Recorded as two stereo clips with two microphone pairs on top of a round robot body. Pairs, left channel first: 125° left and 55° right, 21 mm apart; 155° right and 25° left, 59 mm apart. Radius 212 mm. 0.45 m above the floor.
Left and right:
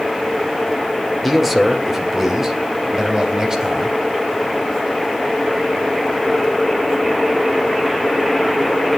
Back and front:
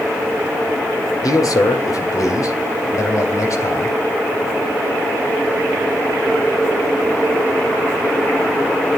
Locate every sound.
1.2 s a man speaking: 140° right, 2 m; by 4.0 s 120° right, 4 m